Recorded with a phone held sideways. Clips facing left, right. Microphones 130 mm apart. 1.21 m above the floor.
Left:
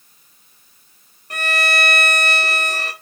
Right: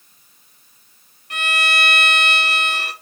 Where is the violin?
40° left (ahead or behind), 1.4 m.